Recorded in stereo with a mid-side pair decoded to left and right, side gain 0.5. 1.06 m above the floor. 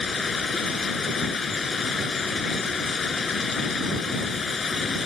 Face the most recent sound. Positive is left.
turn(degrees=35)